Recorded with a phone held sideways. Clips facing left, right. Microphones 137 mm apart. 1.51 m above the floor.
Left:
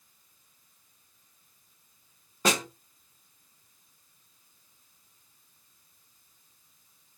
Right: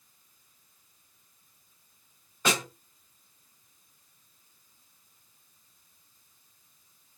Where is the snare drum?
40° left (ahead or behind), 1.4 m.